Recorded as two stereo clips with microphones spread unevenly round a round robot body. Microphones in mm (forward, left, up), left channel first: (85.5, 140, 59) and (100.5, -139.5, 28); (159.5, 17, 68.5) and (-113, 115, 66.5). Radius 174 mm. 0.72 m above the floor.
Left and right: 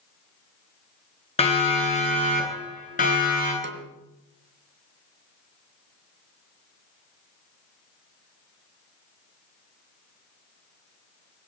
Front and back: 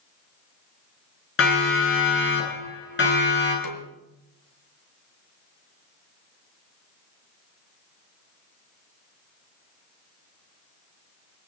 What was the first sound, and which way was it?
A siren, 25° left.